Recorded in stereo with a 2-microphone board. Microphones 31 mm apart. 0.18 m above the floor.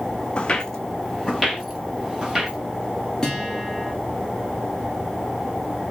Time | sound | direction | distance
0.4 | footsteps | 35° left (ahead or behind) | 0.6 m
3.2 | a guitar | 20° left (ahead or behind) | 3 m